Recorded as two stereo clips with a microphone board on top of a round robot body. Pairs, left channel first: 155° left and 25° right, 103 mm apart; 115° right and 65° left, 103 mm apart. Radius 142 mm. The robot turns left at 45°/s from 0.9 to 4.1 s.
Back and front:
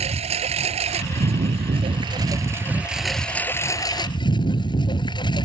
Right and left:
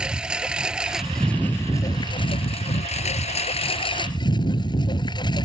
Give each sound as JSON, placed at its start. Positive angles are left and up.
{"t": 0.0, "sound": "a lawn mower", "azimuth_deg": -15}